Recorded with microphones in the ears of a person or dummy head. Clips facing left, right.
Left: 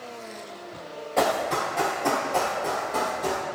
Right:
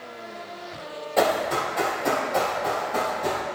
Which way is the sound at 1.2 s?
Centre (ahead or behind).